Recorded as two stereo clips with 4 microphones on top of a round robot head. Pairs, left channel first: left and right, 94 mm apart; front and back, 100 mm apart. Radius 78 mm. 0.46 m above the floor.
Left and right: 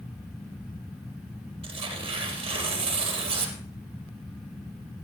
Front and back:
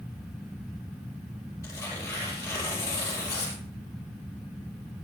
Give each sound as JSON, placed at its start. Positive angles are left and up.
{"t": 1.6, "sound": "tearing paper", "azimuth_deg": -70, "distance_m": 3.5}